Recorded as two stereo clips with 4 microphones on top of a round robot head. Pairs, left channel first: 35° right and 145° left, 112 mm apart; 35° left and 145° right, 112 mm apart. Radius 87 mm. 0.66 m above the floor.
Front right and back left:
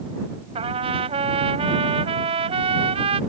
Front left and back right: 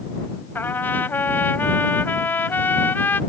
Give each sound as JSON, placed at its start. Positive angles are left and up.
{"t": 0.6, "sound": "a trumpet", "azimuth_deg": 110}